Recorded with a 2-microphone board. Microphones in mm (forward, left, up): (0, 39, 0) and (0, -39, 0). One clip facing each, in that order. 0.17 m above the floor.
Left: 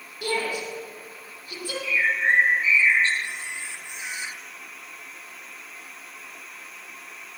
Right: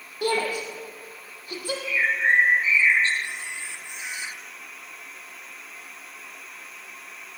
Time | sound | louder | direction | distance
0.2 | a shout | right 2 dB | 40° right (ahead or behind) | 6.5 m
1.8 | a bird | even | 35° right (ahead or behind) | 6 m
3.2 | a camera shutter | even | 15° left (ahead or behind) | 2.5 m